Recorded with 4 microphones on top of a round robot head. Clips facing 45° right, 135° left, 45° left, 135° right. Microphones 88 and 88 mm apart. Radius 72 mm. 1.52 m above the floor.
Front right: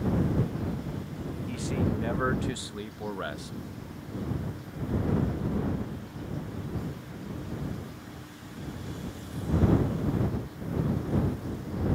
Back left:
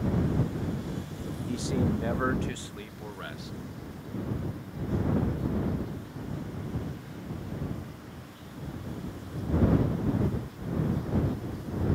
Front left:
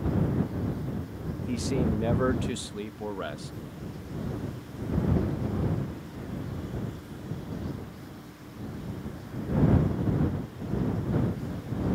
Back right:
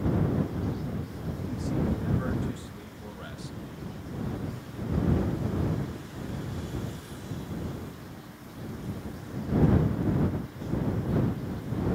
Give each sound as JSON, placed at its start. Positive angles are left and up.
{"t": 1.5, "sound": "a man speaking", "azimuth_deg": 70}